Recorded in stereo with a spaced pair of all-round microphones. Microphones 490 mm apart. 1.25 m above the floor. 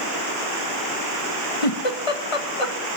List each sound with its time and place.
1.6 s a giggle: 85° left, 1.6 m